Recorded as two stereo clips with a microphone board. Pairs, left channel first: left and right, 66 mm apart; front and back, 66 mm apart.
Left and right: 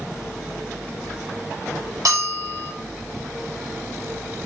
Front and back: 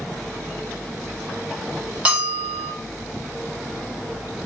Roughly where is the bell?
Right.